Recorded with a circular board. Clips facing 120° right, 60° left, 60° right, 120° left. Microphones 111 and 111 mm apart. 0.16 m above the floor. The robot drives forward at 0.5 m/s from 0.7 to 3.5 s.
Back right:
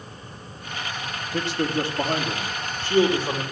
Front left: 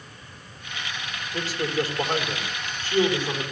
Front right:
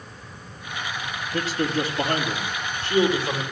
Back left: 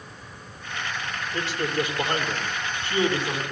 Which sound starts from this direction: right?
A man speaking, at 1.3 s.